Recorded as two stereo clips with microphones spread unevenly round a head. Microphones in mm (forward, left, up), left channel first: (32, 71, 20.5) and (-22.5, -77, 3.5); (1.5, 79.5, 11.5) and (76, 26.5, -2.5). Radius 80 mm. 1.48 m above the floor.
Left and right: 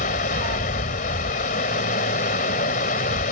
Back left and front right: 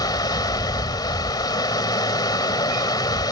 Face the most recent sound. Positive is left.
turn(degrees=110)